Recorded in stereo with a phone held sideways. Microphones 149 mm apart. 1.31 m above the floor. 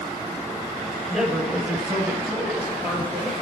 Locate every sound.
1.1 s a man speaking: centre (ahead or behind), 4 m; by 3.3 s 15° right (ahead or behind), 5.5 m